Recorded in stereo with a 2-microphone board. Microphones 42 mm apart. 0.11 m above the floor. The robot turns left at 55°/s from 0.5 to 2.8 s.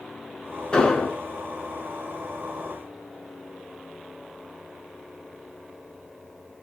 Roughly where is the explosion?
Left.